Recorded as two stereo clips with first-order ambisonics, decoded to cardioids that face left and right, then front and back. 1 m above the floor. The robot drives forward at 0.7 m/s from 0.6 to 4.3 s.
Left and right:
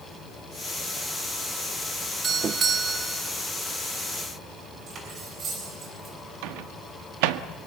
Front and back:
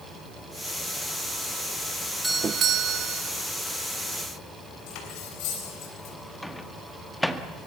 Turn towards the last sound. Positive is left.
turn(degrees=-90)